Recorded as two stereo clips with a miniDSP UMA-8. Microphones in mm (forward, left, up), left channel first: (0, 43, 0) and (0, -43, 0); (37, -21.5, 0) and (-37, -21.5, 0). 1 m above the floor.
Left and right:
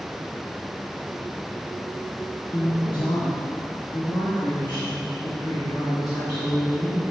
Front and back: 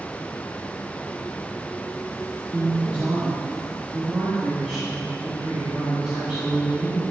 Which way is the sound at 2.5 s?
110° left.